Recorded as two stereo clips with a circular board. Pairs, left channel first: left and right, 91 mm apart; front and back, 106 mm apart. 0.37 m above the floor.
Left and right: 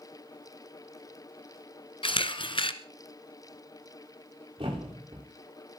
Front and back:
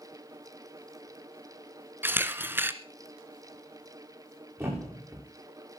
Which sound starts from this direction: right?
A thud, at 4.6 s.